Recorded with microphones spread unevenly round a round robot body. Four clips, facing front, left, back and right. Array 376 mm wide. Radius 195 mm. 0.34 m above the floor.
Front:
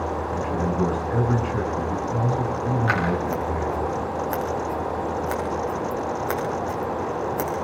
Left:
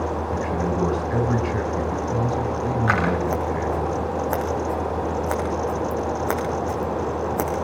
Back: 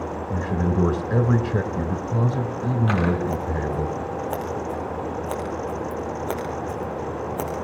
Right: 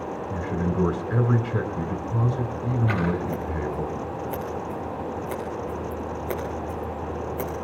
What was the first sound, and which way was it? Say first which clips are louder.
A man speaking: even, back 3 dB; straight behind.